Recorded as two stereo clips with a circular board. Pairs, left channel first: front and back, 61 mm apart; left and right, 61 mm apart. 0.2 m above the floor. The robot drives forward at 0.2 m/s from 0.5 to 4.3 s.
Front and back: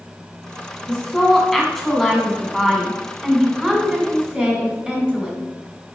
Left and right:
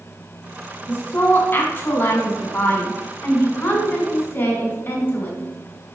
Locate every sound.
0.9 s a woman speaking: 80° left, 1.6 m; by 5.4 s 115° left, 1.7 m